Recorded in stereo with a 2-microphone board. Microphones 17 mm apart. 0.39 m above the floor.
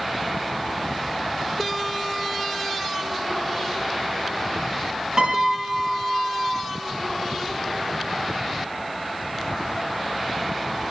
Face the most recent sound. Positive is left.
turn(degrees=-45)  # may be behind; listen again after turning